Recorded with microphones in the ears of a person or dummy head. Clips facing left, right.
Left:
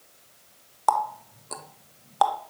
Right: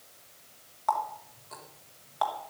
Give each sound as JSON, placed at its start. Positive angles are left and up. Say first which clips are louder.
{"t": 0.9, "sound": "a running tap", "louder": "left 6 dB", "side_deg": 60, "distance_m": 0.9}